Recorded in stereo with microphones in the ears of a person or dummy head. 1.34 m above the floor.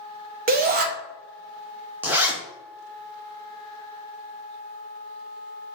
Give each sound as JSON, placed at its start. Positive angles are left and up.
{"t": 0.5, "sound": "a shout", "side_deg": -45, "distance_m": 0.7}
{"t": 2.0, "sound": "a zipper", "side_deg": -10, "distance_m": 0.7}